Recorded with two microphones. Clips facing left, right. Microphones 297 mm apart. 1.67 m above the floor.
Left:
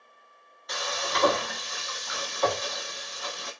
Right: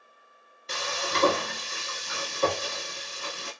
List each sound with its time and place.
0.7 s frying: 35° right (ahead or behind), 0.8 m